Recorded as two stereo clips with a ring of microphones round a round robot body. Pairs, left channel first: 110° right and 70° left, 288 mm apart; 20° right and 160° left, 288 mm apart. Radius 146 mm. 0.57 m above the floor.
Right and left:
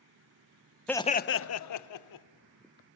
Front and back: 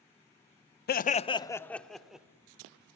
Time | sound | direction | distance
0.9 | laughter | 30° right | 0.6 m